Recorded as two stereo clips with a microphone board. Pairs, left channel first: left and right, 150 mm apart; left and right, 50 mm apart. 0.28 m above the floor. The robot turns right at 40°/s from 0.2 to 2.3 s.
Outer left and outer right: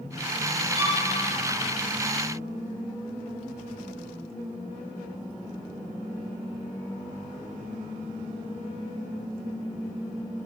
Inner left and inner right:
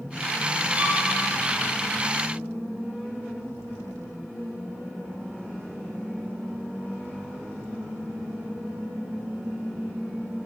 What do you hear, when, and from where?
0.8 s a violin: 40° right (ahead or behind), 1.9 m; by 1.0 s 45° right (ahead or behind), 1.9 m